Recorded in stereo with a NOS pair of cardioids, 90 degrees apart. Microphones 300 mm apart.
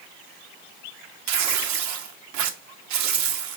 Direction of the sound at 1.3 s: 70° right.